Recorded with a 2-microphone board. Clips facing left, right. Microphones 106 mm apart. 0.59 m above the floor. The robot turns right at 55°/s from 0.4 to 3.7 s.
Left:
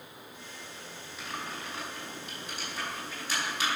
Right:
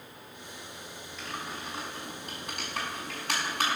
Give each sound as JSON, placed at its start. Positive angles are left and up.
{"t": 1.2, "sound": "typing on a keyboard", "side_deg": 5, "distance_m": 5.0}